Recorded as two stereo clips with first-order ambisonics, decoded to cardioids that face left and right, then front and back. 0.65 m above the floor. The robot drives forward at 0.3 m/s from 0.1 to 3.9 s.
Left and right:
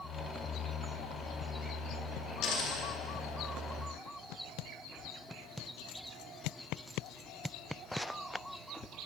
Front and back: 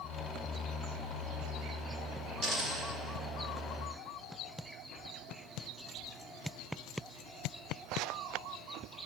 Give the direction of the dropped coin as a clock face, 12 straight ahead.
8 o'clock.